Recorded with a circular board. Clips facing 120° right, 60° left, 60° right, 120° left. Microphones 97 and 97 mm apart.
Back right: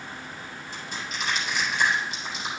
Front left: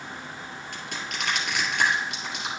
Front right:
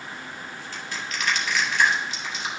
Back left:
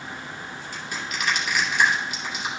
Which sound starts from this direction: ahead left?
Crushing, at 0.7 s.